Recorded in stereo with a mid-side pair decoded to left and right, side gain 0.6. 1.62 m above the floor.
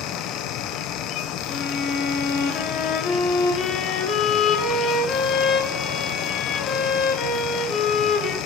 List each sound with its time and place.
0.0 s a fan: 65° left, 1.3 m
1.5 s a violin: 45° left, 3 m